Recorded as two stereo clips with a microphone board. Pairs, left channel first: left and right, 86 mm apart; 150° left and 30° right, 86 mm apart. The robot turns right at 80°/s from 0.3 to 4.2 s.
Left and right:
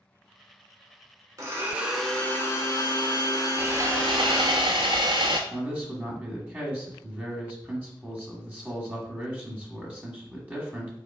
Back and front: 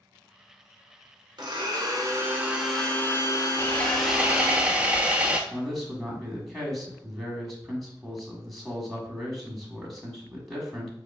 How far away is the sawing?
About 0.7 m.